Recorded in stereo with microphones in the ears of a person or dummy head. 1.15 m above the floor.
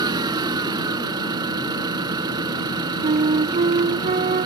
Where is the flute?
35° right (ahead or behind).